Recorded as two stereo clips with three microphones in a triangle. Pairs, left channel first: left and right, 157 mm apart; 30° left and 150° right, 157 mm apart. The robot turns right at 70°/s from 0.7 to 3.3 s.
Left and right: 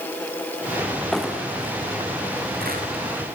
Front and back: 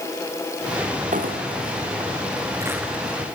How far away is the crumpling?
About 3.5 m.